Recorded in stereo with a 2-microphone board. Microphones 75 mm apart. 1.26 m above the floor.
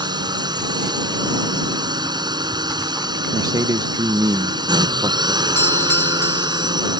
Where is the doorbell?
30° left (ahead or behind).